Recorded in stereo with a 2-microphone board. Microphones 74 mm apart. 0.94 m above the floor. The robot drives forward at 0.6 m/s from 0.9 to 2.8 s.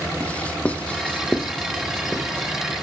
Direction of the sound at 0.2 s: 20° left (ahead or behind).